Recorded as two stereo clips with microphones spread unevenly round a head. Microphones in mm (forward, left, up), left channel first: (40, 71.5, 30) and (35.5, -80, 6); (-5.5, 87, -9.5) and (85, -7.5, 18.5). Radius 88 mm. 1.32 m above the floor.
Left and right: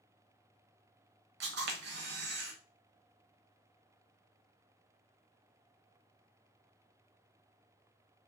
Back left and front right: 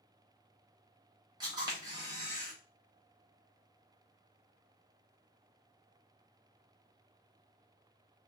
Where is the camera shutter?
95° right, 0.9 m.